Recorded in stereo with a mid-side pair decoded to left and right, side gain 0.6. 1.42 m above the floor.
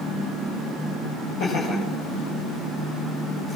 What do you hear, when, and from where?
1.4 s laughter: 60° left, 8 m